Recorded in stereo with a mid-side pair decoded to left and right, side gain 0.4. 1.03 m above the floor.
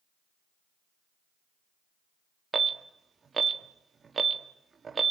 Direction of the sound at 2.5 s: 40° right.